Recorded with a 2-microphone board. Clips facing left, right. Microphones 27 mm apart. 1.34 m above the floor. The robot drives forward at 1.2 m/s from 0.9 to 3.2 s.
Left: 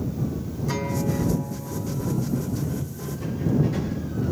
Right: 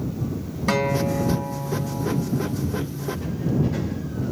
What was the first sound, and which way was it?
A guitar, 65° right (ahead or behind).